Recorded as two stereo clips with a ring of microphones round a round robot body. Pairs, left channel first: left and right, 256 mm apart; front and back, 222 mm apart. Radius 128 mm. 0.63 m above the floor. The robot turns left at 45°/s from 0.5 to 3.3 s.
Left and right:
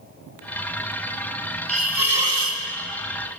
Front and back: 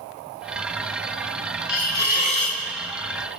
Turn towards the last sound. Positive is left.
turn(degrees=-100)